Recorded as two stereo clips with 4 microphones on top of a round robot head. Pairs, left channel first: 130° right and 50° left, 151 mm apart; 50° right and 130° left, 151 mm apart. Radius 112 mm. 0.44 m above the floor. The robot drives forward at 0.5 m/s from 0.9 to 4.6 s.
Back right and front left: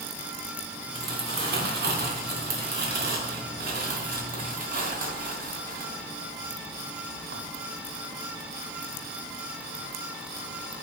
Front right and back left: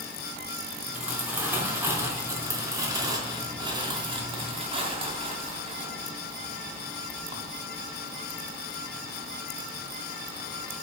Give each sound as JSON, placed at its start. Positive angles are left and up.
{"t": 0.9, "sound": "crumpling", "azimuth_deg": 50, "distance_m": 3.5}